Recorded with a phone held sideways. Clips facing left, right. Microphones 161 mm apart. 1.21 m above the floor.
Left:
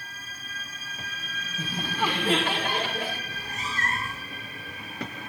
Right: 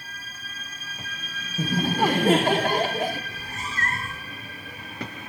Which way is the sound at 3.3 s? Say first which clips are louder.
Even; 45° right (ahead or behind).